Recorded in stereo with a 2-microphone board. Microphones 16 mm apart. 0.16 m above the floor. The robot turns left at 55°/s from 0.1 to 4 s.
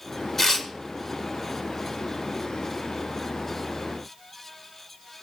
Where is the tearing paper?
25° left (ahead or behind), 1.8 m; by 0.7 s 30° left (ahead or behind), 1.8 m.